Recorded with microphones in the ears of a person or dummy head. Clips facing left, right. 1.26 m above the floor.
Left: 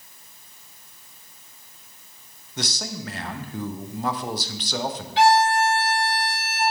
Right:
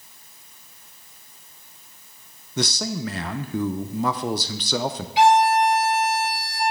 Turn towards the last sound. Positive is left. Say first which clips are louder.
# right 1 dB
turn(degrees=-10)  # may be behind; listen again after turning